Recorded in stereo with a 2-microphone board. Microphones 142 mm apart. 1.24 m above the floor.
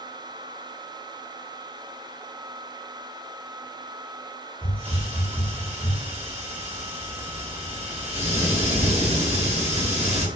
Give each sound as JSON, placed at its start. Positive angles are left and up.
{"t": 4.6, "sound": "a hiss", "side_deg": -45, "distance_m": 0.7}